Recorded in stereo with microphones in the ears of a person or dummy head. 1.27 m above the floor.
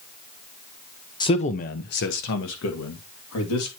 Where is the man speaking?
20° left (ahead or behind), 0.7 m; by 3.7 s 75° left (ahead or behind), 2.5 m.